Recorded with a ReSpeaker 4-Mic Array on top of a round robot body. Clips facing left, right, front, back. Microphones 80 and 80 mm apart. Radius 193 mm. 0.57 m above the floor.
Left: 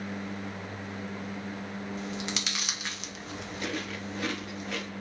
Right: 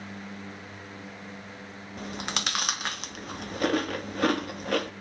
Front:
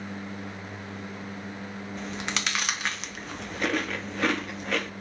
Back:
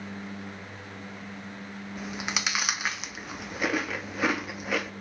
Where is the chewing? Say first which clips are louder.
Right 5 dB, even; 95° right, 1.4 m.